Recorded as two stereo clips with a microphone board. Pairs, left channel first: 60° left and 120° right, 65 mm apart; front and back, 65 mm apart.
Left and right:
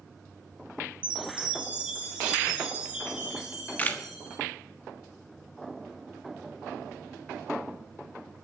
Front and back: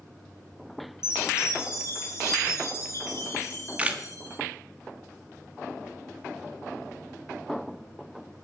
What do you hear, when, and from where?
1.0 s a chime: 45° right, 5 m
3.4 s a camera shutter: 115° left, 1.2 m